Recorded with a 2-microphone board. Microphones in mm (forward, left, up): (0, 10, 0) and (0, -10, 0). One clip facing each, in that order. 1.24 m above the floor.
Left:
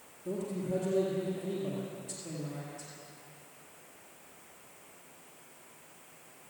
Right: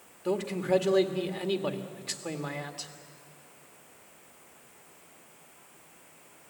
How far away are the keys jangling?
I don't hear keys jangling.